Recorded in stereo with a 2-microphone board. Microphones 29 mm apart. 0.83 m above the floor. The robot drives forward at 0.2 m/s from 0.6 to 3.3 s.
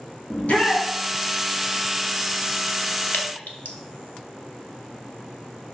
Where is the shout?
55° left (ahead or behind), 2 m.